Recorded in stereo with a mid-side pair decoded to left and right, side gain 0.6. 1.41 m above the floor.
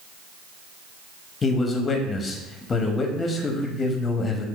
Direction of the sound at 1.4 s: 30° left.